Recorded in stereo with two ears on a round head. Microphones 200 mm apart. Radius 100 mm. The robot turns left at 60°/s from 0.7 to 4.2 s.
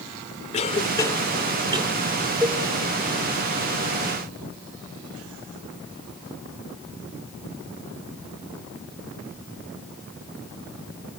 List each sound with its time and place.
0.5 s a cough: 30° left (ahead or behind), 1.9 m; by 1.9 s 30° right (ahead or behind), 1.9 m
2.4 s a cowbell: 5° left (ahead or behind), 4 m; by 2.6 s 15° left (ahead or behind), 4 m